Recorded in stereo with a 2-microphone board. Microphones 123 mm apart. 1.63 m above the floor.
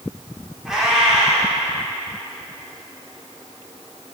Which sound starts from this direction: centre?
A cat meowing, at 0.7 s.